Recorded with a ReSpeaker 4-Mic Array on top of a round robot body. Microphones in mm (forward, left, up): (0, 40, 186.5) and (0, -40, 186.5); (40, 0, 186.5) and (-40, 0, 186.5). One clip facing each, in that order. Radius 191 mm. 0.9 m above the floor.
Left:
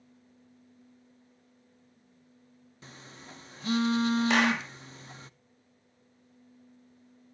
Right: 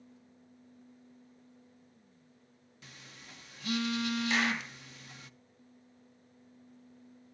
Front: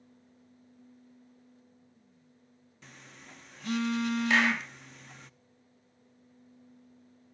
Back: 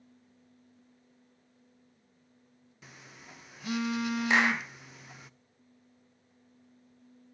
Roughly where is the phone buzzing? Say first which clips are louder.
Left 5 dB, even; left.